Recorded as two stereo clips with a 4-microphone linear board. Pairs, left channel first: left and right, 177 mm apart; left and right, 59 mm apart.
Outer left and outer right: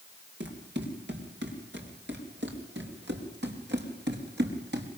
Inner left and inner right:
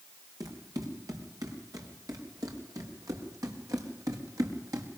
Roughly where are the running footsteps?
Right.